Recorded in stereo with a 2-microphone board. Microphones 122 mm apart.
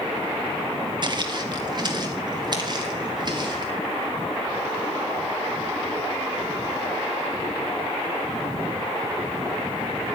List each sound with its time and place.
1.0 s footsteps: 40° right (ahead or behind), 0.8 m